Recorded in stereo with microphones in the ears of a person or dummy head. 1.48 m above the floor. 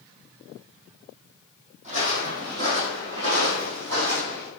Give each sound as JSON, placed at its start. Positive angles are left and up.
{"t": 1.8, "sound": "footsteps", "side_deg": -45, "distance_m": 3.0}